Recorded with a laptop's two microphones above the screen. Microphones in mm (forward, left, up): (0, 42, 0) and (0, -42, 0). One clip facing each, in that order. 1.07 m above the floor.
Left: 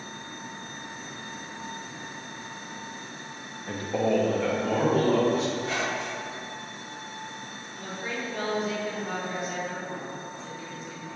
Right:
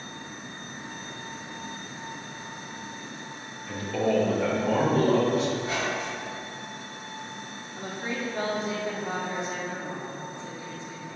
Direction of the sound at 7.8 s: 25° right (ahead or behind).